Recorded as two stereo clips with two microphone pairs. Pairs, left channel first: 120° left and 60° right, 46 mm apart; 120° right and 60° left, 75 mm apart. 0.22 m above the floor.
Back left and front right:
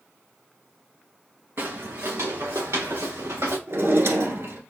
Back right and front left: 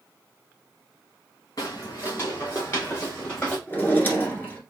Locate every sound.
1.6 s footsteps: 85° right, 1.3 m; by 3.6 s 55° right, 2.5 m
3.7 s a drawer: 55° right, 1.2 m